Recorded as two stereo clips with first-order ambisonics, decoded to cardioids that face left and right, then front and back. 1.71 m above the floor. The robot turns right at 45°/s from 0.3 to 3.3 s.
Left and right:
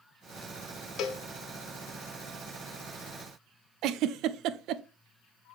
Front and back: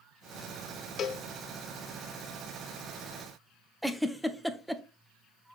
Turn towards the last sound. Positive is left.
turn(degrees=-90)